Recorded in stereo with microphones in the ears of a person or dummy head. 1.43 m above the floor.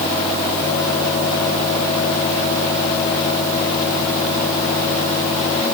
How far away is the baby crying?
I don't hear a baby crying.